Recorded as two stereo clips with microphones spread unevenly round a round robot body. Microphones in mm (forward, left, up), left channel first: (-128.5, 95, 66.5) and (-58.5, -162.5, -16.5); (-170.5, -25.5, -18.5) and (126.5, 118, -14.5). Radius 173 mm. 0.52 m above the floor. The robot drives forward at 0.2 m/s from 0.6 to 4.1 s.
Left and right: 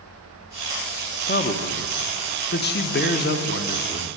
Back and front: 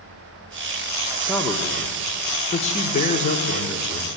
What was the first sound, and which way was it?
A man speaking, 145° left.